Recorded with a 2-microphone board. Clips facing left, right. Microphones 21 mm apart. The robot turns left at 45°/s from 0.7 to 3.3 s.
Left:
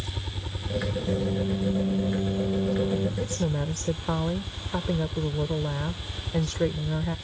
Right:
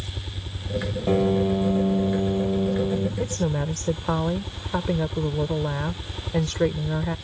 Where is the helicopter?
50° left; by 7.2 s 70° right.